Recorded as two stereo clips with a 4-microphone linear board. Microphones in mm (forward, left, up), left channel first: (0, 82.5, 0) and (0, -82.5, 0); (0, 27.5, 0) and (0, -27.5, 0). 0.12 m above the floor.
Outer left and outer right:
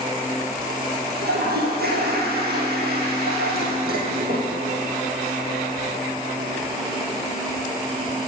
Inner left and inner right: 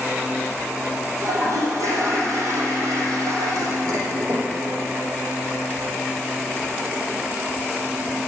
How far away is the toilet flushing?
About 3.5 m.